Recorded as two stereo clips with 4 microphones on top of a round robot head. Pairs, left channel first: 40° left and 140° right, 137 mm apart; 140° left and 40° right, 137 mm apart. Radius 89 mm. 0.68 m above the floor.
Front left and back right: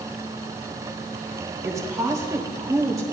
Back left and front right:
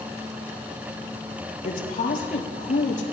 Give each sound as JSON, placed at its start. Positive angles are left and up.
{"t": 1.6, "sound": "a woman speaking", "azimuth_deg": 155, "distance_m": 3.0}